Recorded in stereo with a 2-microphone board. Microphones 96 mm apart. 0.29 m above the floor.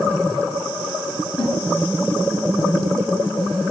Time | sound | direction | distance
1.4 | a snare drum | 60° left (ahead or behind) | 2 m